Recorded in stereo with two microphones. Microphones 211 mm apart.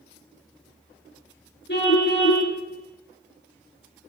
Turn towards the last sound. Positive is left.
turn(degrees=55)  # may be behind; listen again after turning